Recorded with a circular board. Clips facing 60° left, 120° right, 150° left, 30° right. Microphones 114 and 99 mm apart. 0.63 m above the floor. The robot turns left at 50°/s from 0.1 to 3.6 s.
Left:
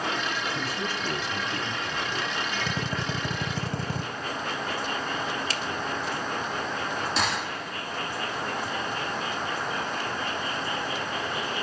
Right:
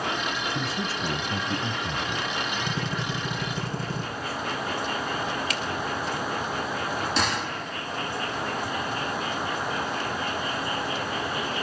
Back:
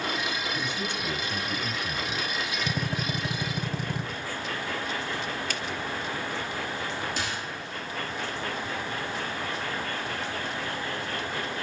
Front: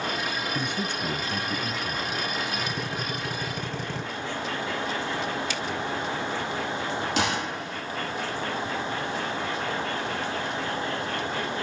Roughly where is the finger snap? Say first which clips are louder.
Right 1 dB, front 2 dB; behind left.